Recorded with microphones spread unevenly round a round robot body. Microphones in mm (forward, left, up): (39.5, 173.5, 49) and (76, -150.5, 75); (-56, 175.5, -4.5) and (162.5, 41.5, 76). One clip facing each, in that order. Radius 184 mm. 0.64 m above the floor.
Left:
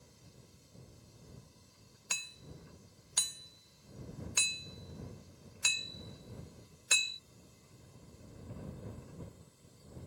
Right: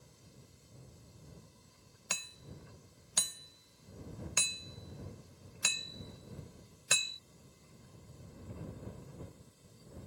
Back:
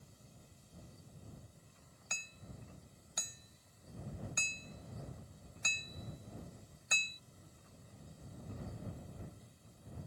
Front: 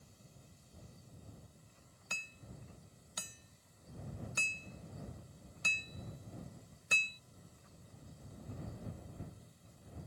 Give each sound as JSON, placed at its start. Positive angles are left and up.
{"t": 2.1, "sound": "hammering", "azimuth_deg": -100}